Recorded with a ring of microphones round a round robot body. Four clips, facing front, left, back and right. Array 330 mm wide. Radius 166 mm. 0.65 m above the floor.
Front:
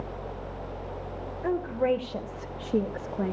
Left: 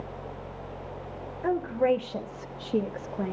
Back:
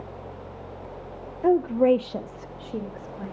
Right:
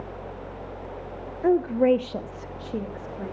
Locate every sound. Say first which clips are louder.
1.4 s a woman speaking: right 5 dB, back 7 dB; 145° right, 1.8 m; by 3.4 s 30° left, 1.8 m